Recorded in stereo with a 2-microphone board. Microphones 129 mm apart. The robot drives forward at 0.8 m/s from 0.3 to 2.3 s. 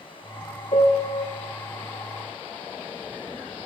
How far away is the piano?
About 1.2 m.